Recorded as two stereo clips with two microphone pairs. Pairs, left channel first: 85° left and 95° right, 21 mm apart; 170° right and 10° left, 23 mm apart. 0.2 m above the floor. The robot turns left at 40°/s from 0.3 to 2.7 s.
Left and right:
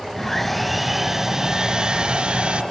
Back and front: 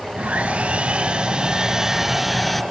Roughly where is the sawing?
Ahead.